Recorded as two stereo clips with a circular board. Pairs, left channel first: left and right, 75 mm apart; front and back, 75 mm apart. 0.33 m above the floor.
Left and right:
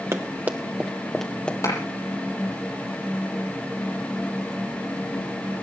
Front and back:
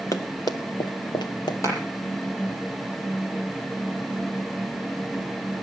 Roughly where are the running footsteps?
Ahead right.